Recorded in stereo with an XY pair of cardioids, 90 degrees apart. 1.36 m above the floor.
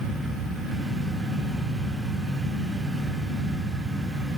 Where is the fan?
50° right, 3 m.